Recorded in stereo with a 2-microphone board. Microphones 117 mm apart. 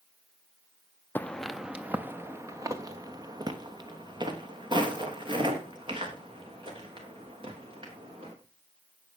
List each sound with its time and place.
1.1 s footsteps: 15° left (ahead or behind), 0.8 m; by 8.3 s 45° right (ahead or behind), 5.5 m